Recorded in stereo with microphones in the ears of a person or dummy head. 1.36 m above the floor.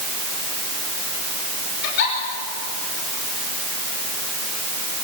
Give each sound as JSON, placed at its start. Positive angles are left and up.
{"t": 1.8, "sound": "a giggle", "side_deg": 70, "distance_m": 6.0}